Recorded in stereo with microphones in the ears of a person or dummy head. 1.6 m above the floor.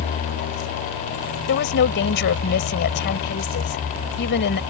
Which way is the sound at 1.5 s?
50° left (ahead or behind).